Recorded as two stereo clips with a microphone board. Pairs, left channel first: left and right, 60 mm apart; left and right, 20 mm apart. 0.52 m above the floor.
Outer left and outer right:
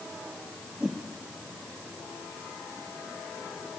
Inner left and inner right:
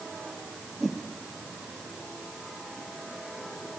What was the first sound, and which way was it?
A whoosh, 10° right (ahead or behind).